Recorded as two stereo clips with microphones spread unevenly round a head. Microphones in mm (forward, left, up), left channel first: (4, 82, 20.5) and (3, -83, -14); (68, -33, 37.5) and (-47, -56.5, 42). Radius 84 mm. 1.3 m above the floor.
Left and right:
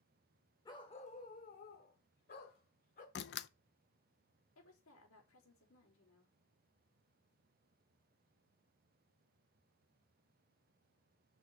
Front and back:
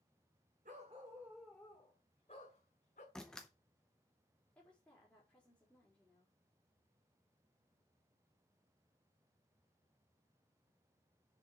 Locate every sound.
0.7 s a dog barking: 150° left, 1.8 m; by 3.0 s 55° left, 3.5 m
3.1 s a door slam: 100° left, 0.6 m
4.5 s a woman speaking: 95° left, 4 m